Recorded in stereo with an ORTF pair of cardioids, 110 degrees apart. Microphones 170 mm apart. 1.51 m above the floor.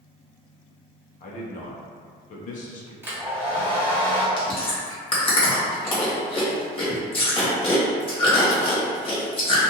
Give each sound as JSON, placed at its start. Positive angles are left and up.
{"t": 1.2, "sound": "a man speaking", "azimuth_deg": 50, "distance_m": 0.8}
{"t": 3.0, "sound": "a hair dryer", "azimuth_deg": -15, "distance_m": 1.1}
{"t": 4.4, "sound": "chewing", "azimuth_deg": 30, "distance_m": 1.2}